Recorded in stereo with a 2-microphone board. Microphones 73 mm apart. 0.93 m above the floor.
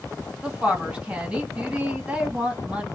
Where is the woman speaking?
15° right (ahead or behind), 1.9 m.